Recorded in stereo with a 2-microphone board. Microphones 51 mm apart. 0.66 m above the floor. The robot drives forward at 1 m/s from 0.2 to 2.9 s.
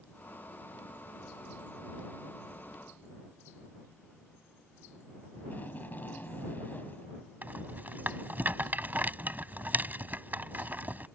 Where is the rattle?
35° right (ahead or behind).